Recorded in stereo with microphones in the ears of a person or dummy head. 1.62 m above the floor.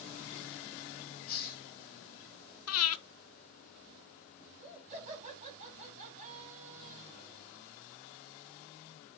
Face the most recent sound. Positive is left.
turn(degrees=-35)  # may be behind; listen again after turning